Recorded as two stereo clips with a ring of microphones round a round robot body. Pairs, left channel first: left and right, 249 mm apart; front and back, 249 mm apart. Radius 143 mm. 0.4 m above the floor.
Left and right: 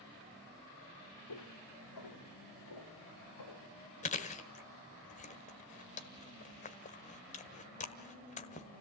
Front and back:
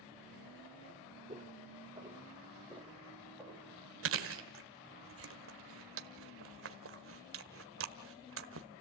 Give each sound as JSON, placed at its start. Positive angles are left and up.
{"t": 1.3, "sound": "footsteps", "azimuth_deg": 105, "distance_m": 4.0}
{"t": 4.0, "sound": "chewing", "azimuth_deg": 150, "distance_m": 1.3}